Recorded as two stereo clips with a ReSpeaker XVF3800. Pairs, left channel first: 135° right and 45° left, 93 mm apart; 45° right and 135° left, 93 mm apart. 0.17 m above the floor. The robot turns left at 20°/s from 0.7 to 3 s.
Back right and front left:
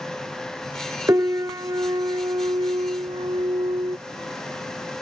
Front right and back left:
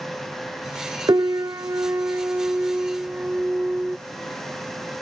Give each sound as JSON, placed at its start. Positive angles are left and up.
{"t": 1.1, "sound": "a piano", "azimuth_deg": 100}